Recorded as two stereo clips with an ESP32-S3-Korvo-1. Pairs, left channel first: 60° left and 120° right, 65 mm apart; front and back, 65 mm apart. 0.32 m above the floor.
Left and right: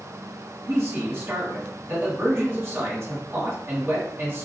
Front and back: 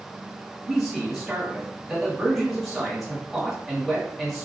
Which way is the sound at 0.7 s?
95° right.